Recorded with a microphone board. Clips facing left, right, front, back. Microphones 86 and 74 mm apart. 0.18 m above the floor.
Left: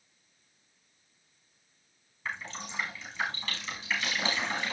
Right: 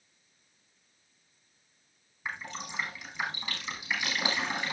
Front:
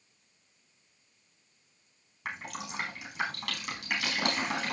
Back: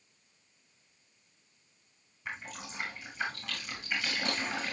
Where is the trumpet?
No trumpet in this recording.